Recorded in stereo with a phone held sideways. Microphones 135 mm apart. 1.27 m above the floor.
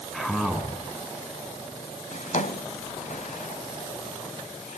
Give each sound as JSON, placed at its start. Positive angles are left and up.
{"t": 0.1, "sound": "a man speaking", "side_deg": 5, "distance_m": 7.5}
{"t": 2.1, "sound": "a drawer", "side_deg": 65, "distance_m": 2.0}